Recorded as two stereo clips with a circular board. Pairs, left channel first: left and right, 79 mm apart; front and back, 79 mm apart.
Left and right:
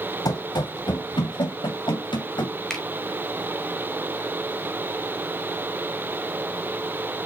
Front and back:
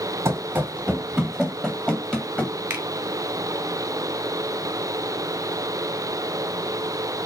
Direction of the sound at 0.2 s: 125° left.